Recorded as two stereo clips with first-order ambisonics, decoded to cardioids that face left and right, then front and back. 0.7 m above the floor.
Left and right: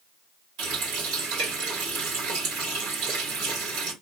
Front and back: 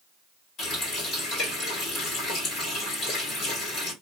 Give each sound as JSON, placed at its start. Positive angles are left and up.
{"t": 0.6, "sound": "a running tap", "azimuth_deg": -60, "distance_m": 2.0}